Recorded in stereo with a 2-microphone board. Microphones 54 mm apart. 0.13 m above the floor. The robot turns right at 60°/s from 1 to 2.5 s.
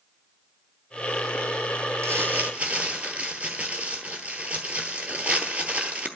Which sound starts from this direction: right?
Crumpling, at 2.0 s.